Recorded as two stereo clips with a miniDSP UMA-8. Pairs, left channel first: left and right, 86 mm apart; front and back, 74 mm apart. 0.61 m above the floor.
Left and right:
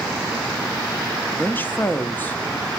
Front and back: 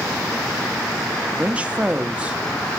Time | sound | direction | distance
1.4 | a woman speaking | 130° left | 0.6 m